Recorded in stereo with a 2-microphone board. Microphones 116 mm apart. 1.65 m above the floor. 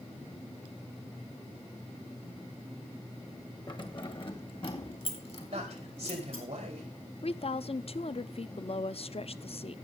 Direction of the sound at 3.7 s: 40° left (ahead or behind).